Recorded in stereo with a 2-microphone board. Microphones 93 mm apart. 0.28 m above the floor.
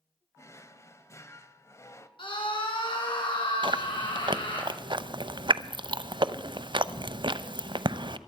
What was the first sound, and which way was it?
A drawer, 30° left (ahead or behind).